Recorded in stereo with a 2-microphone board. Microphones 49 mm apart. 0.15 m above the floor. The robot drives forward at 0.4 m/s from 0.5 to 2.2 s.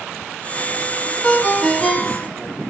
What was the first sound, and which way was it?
A ringtone, 25° left (ahead or behind).